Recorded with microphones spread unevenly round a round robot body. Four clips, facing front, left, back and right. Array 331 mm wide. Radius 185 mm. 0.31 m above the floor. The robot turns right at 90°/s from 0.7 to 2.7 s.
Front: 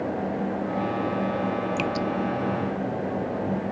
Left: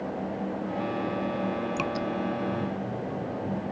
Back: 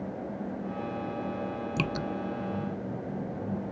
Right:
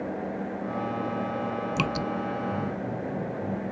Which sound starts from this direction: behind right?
Dripping, at 1.8 s.